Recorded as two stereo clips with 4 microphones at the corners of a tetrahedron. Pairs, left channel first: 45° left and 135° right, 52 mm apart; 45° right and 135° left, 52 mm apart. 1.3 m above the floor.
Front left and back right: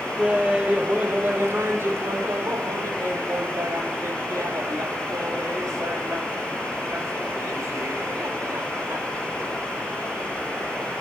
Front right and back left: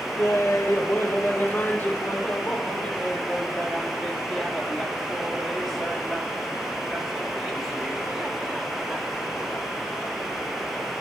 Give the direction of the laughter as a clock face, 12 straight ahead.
2 o'clock.